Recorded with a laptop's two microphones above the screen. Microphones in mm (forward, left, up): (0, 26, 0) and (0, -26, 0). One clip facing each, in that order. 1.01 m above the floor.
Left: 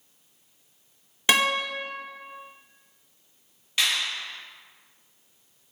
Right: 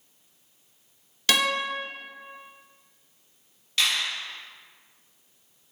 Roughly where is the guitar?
Left.